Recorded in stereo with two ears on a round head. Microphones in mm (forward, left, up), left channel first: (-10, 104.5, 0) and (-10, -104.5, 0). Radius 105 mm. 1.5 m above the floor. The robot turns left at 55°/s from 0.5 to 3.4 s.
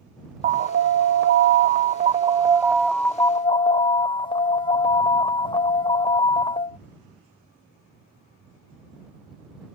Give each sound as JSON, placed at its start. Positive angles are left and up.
{"t": 0.4, "sound": "an alarm", "azimuth_deg": -50}